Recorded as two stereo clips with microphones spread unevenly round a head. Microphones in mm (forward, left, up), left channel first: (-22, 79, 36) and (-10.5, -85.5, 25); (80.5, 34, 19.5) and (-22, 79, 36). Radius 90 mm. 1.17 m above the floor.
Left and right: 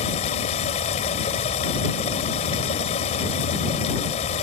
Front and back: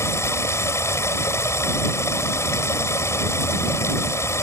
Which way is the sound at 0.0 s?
40° left.